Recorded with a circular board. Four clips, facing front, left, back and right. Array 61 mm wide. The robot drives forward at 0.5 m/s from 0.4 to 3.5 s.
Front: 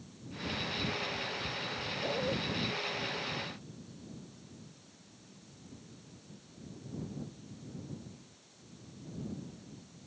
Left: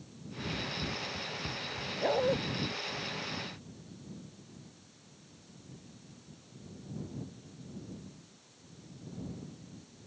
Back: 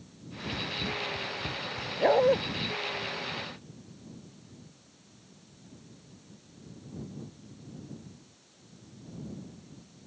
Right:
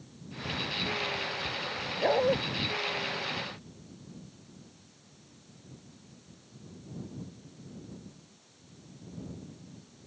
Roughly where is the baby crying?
I don't hear a baby crying.